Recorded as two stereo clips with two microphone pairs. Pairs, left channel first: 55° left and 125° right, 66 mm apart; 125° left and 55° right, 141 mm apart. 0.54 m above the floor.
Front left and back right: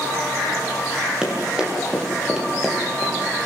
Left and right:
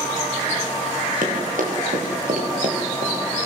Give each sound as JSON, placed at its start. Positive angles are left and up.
{"t": 1.2, "sound": "running footsteps", "azimuth_deg": -50, "distance_m": 8.0}